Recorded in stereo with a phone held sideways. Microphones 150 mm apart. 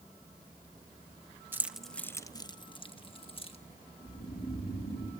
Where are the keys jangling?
15° right (ahead or behind), 0.7 m; by 3.6 s 35° left (ahead or behind), 1.5 m.